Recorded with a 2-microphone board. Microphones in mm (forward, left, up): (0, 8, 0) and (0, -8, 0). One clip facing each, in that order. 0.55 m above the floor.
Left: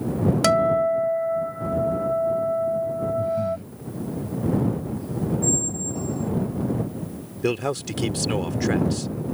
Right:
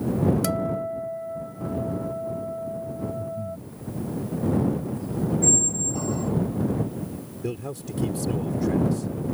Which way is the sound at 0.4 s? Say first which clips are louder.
Left 8 dB; 35° left (ahead or behind).